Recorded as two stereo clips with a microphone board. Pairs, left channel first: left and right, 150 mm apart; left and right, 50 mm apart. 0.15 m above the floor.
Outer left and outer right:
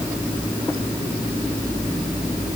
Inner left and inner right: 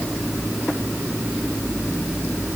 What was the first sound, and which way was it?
Only background noise.